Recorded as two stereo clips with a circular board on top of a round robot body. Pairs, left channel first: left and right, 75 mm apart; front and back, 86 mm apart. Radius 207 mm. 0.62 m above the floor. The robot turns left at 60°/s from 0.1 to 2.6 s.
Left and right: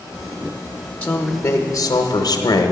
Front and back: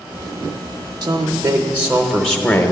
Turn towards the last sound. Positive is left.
turn(degrees=60)